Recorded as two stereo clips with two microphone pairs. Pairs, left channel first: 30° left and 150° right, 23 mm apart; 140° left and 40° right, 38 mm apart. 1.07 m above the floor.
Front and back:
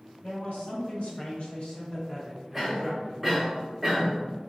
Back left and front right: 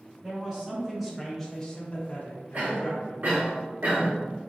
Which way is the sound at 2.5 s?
75° right.